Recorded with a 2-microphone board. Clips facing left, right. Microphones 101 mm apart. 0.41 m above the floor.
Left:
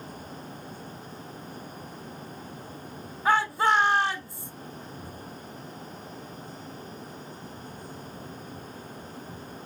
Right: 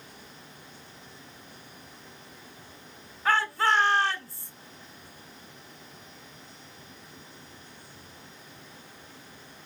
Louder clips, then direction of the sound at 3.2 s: Left 2 dB; 20° left (ahead or behind).